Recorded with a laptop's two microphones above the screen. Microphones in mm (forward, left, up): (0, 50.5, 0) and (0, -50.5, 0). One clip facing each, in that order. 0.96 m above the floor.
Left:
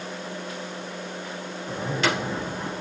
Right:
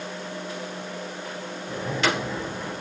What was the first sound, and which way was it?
A zipper, 30° left (ahead or behind).